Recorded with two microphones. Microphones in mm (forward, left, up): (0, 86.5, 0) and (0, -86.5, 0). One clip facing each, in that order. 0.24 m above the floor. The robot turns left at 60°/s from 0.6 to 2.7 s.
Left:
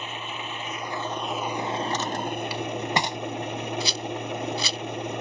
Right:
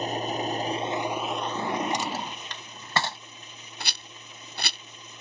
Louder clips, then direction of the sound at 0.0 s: Right 7 dB; 140° right.